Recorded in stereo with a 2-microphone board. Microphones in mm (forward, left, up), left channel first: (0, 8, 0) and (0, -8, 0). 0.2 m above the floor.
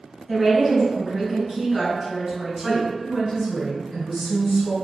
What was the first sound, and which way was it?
A woman speaking, 25° right (ahead or behind).